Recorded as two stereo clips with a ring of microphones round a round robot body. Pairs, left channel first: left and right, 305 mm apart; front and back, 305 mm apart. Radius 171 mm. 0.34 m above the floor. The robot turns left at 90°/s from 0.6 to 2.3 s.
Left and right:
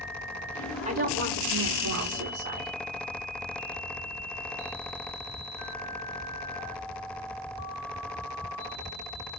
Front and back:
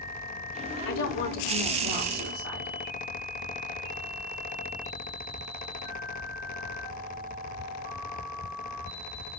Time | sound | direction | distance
0.8 | a woman speaking | 30° right | 4.5 m